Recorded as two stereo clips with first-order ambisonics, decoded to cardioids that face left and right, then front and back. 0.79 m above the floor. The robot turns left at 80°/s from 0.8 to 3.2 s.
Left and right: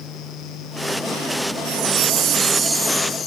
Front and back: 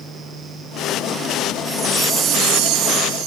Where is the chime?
85° right, 2.0 m; by 3.3 s 150° left, 2.0 m.